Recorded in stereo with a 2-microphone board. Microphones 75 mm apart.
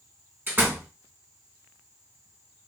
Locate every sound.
0.5 s a door slam: 30° right (ahead or behind), 0.9 m